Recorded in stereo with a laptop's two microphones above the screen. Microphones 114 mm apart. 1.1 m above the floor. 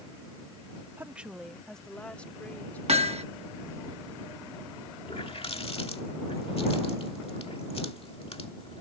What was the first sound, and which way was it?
A woman speaking, 20° right (ahead or behind).